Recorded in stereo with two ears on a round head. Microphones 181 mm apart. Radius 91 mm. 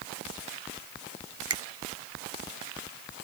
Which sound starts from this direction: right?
A finger snap, at 1.5 s.